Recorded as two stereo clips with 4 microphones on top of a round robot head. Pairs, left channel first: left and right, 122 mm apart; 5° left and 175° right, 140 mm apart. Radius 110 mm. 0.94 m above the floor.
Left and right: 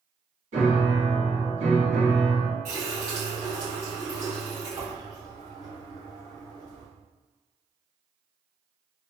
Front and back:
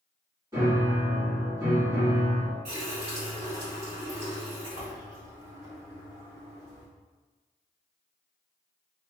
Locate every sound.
0.5 s a piano: 105° right, 1.8 m
2.6 s a running tap: 130° right, 1.5 m